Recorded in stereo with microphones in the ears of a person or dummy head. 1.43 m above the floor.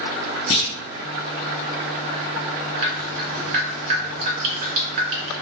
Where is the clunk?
40° left (ahead or behind), 1.1 m.